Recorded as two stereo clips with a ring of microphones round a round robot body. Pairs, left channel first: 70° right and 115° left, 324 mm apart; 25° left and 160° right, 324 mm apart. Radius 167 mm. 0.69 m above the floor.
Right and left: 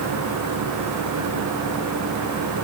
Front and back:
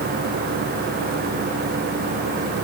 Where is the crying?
I don't hear crying.